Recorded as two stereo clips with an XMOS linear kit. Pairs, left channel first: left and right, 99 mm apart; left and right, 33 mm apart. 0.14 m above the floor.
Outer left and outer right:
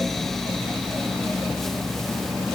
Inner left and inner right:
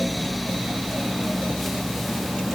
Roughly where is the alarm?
I don't hear an alarm.